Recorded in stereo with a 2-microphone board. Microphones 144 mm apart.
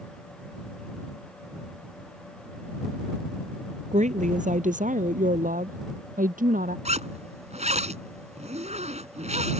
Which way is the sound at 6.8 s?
55° right (ahead or behind).